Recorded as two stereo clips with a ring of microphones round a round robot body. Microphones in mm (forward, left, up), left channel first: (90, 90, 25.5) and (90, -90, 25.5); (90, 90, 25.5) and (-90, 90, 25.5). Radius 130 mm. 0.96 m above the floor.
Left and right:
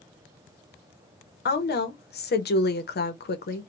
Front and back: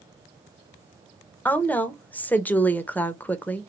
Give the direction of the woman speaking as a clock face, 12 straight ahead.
9 o'clock.